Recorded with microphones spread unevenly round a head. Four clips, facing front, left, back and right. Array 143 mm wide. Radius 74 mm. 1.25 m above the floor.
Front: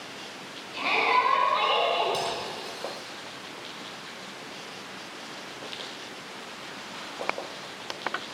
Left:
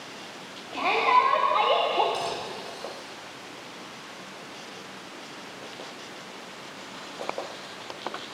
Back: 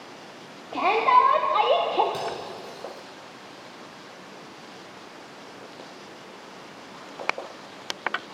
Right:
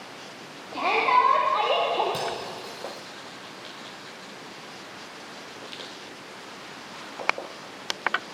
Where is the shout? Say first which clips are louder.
Even, back 6 dB; 175° right, 4 m; by 2.0 s 170° left, 2.5 m.